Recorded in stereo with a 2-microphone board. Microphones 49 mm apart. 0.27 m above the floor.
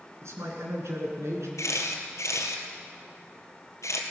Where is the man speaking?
70° right (ahead or behind), 3 m.